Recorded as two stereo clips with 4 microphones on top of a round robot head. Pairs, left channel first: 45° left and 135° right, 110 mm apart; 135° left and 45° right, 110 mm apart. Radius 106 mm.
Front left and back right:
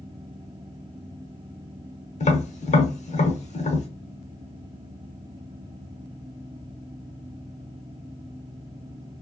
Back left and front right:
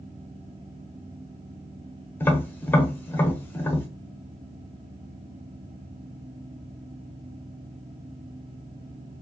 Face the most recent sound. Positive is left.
turn(degrees=65)